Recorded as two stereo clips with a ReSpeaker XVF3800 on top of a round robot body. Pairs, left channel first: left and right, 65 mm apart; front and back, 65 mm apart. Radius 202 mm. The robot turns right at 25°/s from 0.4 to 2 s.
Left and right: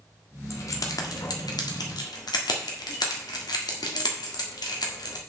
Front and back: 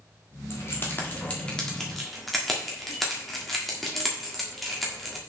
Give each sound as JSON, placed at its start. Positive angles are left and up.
{"t": 0.5, "sound": "keys jangling", "azimuth_deg": 50, "distance_m": 1.5}